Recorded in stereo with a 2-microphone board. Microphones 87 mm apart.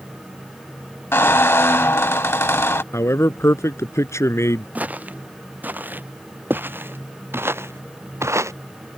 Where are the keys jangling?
No keys jangling in this recording.